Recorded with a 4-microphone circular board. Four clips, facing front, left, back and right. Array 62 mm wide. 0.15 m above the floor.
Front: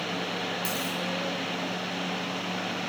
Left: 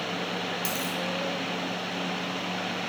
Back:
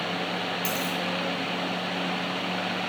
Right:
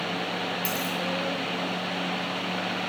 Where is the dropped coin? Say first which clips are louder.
Right 2 dB, back 2 dB; 15° left, 1.2 m.